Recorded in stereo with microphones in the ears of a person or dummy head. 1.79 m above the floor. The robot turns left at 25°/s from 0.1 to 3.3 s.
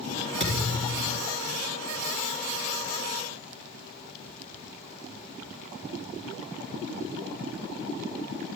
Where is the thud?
30° right (ahead or behind), 3 m; by 1.2 s 10° right (ahead or behind), 3 m.